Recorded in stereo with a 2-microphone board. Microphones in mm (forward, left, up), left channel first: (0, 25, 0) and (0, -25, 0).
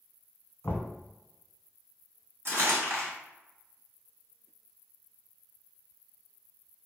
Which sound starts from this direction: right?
Crumpling, at 2.5 s.